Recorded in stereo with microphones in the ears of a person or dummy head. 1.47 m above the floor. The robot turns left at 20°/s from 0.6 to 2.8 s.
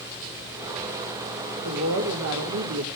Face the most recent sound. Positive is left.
turn(degrees=-75)  # may be behind; listen again after turning